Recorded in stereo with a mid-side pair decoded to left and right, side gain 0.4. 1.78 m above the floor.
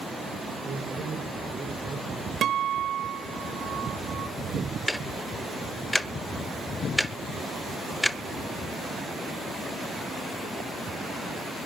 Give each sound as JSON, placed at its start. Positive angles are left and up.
{"t": 0.6, "sound": "a man speaking", "azimuth_deg": -60, "distance_m": 4.5}
{"t": 2.4, "sound": "a guitar", "azimuth_deg": -60, "distance_m": 1.1}
{"t": 4.9, "sound": "ticking", "azimuth_deg": 0, "distance_m": 1.3}